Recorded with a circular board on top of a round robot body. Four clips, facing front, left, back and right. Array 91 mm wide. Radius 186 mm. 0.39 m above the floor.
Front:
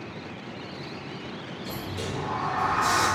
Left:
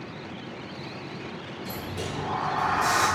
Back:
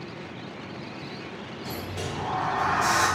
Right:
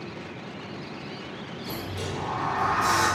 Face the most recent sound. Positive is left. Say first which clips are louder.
# right 1 dB, even
turn(degrees=165)